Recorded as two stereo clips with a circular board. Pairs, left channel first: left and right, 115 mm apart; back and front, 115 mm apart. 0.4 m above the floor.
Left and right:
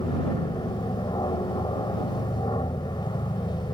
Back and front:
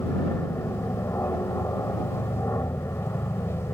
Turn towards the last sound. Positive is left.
turn(degrees=120)